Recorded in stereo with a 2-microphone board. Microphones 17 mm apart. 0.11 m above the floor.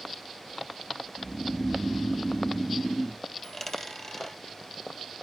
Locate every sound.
1.2 s snoring: 35° left (ahead or behind), 0.8 m
3.4 s a dropped coin: 15° left (ahead or behind), 1.5 m